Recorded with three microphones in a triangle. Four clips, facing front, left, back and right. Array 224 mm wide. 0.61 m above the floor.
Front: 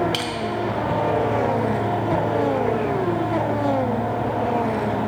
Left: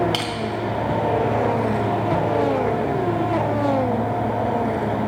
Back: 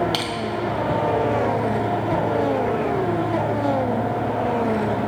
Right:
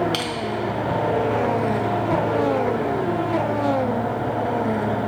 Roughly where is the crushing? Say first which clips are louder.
Left 1 dB, back 1 dB; behind left.